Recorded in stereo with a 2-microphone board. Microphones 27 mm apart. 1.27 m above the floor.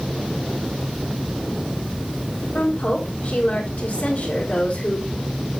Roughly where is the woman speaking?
Left.